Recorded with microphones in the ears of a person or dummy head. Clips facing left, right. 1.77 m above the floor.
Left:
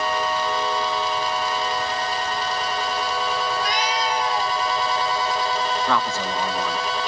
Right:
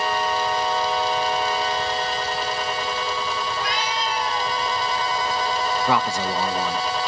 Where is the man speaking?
15° right (ahead or behind), 0.7 m.